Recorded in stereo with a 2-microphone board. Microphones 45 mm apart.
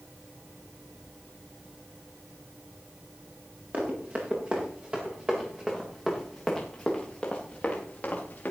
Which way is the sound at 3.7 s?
35° right (ahead or behind).